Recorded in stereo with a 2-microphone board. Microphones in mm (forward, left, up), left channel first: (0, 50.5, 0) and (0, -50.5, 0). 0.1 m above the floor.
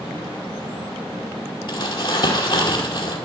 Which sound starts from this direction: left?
Crumpling, at 1.7 s.